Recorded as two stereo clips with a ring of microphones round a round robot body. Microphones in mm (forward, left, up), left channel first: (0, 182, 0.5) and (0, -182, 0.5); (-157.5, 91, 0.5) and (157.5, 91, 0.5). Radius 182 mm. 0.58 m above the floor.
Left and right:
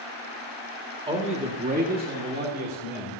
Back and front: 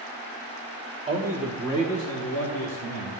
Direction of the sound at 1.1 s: 35° right.